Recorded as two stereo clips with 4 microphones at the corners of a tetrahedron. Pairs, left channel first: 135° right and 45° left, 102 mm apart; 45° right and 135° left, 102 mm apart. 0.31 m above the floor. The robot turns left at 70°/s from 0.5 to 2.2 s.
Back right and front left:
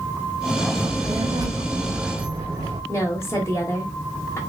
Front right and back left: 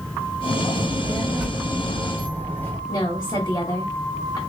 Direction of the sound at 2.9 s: 80° right.